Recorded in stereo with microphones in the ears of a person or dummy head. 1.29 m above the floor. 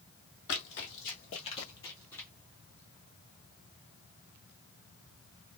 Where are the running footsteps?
55° left (ahead or behind), 2 m; by 2.3 s 10° left (ahead or behind), 2 m.